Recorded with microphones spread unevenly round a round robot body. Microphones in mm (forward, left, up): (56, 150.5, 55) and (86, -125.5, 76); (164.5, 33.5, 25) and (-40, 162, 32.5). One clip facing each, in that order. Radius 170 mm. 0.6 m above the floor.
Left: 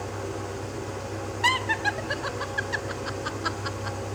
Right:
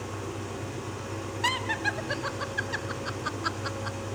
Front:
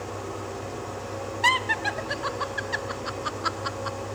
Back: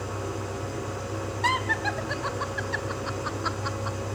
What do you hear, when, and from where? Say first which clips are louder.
0.0 s an engine running: left 3 dB, back 1 dB; 145° right, 8.5 m
1.4 s laughter: left 2 dB, back 1 dB; 5° left, 1.6 m